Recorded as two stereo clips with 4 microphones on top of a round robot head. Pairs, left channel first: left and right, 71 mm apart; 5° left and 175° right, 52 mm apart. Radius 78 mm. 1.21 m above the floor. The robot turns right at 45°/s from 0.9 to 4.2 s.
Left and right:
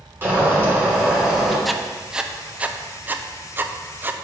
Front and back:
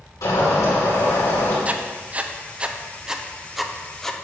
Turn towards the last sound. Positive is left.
turn(degrees=-65)